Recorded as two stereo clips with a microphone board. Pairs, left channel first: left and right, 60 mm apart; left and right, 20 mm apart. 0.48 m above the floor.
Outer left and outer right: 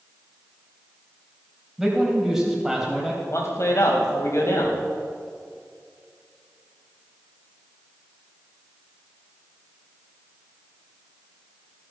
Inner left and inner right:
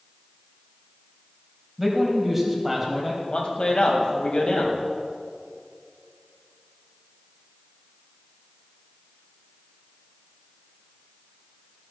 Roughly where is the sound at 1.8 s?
Centre.